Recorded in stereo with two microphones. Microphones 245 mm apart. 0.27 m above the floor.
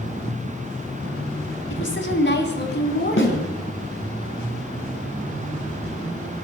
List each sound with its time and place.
1.7 s a woman speaking: 55° left (ahead or behind), 1.9 m; by 3.5 s 40° left (ahead or behind), 2.5 m
3.2 s a snare drum: 50° left (ahead or behind), 2.5 m